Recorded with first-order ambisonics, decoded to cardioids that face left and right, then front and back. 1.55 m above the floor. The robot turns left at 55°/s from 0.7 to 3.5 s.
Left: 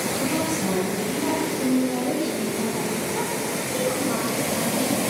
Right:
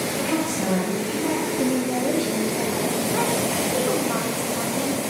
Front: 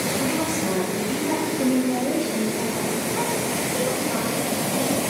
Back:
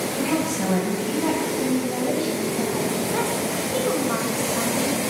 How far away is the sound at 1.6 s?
About 2 m.